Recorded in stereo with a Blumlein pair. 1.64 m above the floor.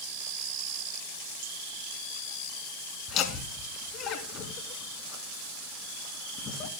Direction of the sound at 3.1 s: 35° left.